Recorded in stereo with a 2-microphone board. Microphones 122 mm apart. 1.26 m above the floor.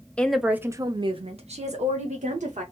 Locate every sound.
0.2 s a woman speaking: 10° left (ahead or behind), 0.5 m; by 2.6 s 75° right (ahead or behind), 1.2 m